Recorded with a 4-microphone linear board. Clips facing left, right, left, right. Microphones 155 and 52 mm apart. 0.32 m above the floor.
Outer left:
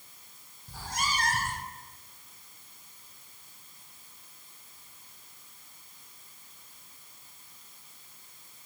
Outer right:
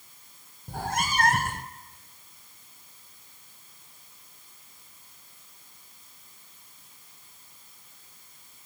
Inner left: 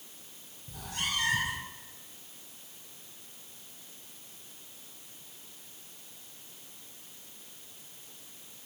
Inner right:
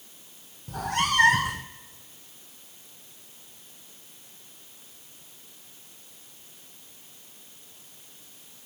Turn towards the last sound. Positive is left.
turn(degrees=-60)  # may be behind; listen again after turning